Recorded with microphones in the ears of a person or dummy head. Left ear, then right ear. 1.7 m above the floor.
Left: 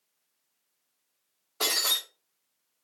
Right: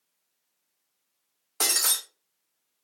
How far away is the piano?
I don't hear a piano.